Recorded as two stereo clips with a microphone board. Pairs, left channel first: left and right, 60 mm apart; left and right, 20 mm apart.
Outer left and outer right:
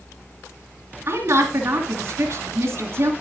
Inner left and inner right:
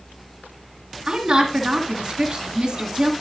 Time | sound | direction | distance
1.1 | a woman speaking | 45° right (ahead or behind) | 1.9 m